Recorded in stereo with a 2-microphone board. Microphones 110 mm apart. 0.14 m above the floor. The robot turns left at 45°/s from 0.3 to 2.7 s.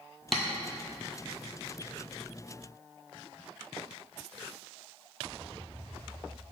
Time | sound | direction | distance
0.3 | tapping | 5° left (ahead or behind) | 0.8 m